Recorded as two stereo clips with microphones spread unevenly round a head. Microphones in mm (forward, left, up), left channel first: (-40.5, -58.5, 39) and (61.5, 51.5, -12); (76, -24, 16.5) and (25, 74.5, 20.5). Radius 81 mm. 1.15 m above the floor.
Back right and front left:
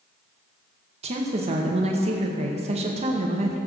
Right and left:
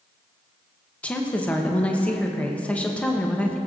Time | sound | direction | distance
1.0 | a woman speaking | 15° left | 0.8 m